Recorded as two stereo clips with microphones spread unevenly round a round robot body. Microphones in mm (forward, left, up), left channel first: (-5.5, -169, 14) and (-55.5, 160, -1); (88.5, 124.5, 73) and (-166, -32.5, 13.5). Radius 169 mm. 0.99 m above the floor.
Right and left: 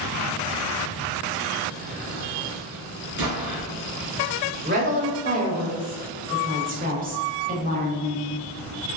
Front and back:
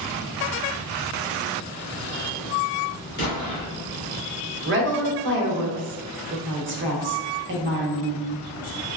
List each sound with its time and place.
3.2 s an explosion: 80° left, 1.6 m
4.7 s a woman speaking: 165° left, 1.0 m